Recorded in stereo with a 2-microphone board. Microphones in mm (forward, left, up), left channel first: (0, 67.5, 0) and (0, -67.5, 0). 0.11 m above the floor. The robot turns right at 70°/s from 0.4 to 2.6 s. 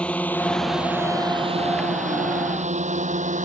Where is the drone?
10° left (ahead or behind); by 3.5 s 65° right (ahead or behind).